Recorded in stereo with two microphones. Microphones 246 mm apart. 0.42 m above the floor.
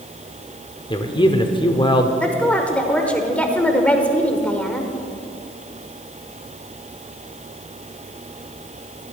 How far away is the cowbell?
No cowbell in this recording.